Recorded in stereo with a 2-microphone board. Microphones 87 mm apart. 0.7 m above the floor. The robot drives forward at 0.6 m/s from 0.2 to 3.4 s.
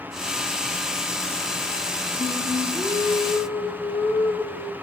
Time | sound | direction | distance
2.2 | singing | 55° left (ahead or behind) | 2 m